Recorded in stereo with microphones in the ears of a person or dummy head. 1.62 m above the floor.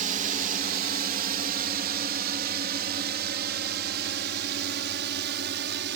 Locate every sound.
0.0 s a drone: 40° right (ahead or behind); by 6.0 s 60° right (ahead or behind)